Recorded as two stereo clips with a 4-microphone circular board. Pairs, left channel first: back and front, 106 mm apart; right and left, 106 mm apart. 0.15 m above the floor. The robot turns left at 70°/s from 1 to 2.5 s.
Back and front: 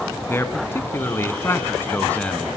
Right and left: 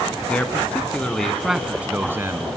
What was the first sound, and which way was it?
A man speaking, 155° right.